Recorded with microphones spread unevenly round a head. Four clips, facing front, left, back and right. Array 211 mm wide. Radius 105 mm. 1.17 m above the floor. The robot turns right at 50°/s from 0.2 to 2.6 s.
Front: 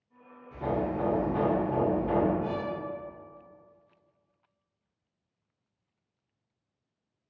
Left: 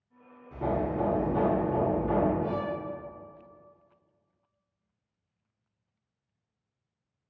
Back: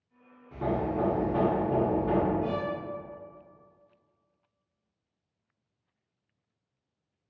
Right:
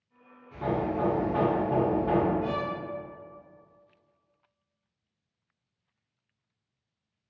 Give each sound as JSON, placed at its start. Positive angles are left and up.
{"t": 0.5, "sound": "hammering", "azimuth_deg": 145, "distance_m": 0.8}
{"t": 2.4, "sound": "a violin", "azimuth_deg": -135, "distance_m": 0.9}